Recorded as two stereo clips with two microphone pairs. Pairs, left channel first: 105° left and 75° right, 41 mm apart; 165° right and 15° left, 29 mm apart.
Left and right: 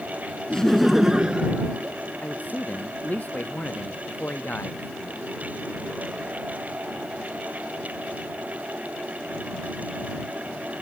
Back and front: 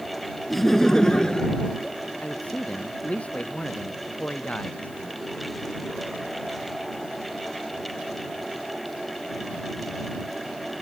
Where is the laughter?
110° left; by 2.0 s 115° right.